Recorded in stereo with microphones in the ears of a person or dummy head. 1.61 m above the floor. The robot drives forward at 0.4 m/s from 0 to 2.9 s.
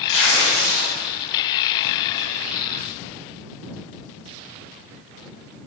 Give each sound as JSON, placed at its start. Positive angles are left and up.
{"t": 0.1, "sound": "tearing paper", "side_deg": 70, "distance_m": 1.9}